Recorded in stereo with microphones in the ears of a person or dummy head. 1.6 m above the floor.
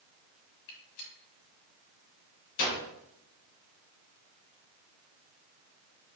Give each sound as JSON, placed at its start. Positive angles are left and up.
{"t": 0.7, "sound": "a gunshot", "side_deg": 50, "distance_m": 1.5}